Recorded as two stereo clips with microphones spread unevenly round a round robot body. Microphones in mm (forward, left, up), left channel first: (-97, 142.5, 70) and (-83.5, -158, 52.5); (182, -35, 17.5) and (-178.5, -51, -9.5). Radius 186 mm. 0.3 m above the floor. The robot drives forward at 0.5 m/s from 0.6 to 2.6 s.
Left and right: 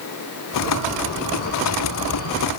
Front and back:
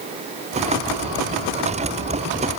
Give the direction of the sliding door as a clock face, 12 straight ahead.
No sliding door in this recording.